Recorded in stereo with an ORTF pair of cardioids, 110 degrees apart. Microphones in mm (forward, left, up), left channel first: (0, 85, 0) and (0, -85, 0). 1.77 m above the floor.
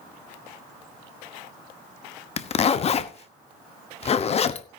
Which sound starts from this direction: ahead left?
A zipper, at 2.4 s.